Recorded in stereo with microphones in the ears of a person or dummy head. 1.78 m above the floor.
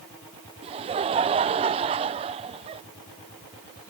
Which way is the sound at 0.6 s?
30° right (ahead or behind).